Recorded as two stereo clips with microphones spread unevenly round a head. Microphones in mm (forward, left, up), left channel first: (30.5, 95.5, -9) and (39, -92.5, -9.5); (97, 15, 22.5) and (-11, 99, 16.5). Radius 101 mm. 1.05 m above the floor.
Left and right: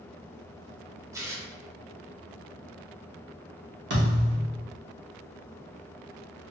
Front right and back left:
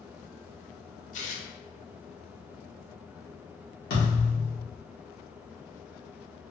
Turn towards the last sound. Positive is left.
turn(degrees=-65)